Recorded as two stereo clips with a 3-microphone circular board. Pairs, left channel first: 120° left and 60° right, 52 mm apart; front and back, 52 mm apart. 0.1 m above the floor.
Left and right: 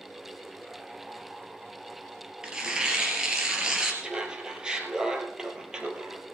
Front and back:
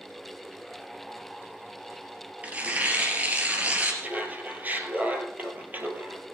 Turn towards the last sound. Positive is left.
turn(degrees=-130)